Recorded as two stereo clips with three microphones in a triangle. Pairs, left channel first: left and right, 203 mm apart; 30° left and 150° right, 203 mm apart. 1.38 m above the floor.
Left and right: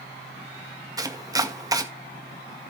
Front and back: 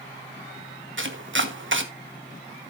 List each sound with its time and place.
1.0 s chopping: 165° right, 1.1 m